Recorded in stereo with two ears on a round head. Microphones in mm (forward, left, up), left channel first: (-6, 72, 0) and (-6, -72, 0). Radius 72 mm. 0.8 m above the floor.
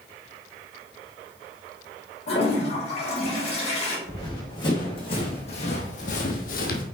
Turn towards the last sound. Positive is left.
turn(degrees=60)  # may be behind; listen again after turning